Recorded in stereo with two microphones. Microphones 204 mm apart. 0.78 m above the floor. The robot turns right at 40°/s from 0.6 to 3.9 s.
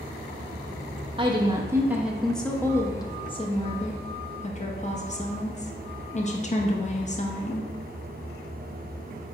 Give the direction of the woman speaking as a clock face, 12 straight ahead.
1 o'clock.